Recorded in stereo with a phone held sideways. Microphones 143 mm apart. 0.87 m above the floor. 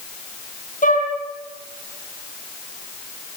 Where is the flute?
70° left (ahead or behind), 6.5 m.